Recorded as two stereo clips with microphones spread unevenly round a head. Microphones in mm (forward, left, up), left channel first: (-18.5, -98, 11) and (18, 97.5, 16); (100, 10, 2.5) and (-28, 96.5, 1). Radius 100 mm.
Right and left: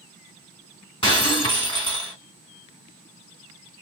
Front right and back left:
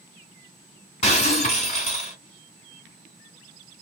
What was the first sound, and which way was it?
Breaking glass, 45° right.